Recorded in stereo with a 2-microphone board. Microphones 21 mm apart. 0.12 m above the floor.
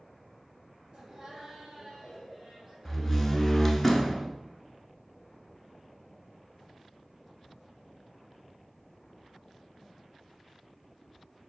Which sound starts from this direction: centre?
A door slam, at 2.9 s.